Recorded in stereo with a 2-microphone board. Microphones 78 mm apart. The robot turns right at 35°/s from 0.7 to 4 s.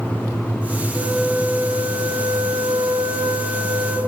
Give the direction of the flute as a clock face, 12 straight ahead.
4 o'clock.